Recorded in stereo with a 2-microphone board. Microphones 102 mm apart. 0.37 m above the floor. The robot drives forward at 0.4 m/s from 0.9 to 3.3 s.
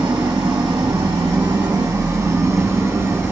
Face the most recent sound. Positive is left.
turn(degrees=-20)  # may be behind; listen again after turning